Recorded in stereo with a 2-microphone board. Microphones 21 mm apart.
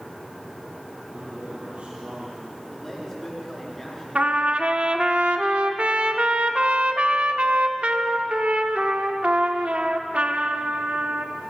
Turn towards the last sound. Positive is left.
turn(degrees=-70)  # may be behind; listen again after turning